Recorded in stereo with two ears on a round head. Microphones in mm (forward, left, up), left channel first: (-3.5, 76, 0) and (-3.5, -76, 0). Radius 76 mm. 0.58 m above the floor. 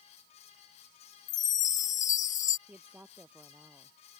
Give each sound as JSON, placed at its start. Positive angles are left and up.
{"t": 1.3, "sound": "a chime", "side_deg": 45}
{"t": 2.7, "sound": "a woman speaking", "side_deg": -10}